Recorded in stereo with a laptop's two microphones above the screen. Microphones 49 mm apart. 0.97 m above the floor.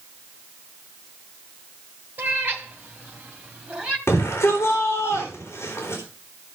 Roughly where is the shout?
Left.